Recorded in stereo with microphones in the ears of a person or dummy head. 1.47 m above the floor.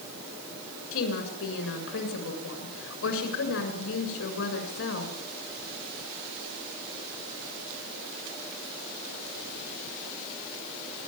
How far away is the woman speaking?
About 6.5 m.